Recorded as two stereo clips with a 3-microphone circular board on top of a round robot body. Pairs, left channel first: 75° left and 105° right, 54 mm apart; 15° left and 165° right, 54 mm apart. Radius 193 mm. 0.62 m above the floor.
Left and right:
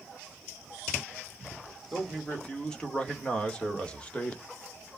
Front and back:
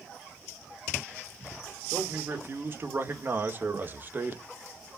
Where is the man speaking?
150° left, 3 m; by 4.4 s 140° left, 1.8 m.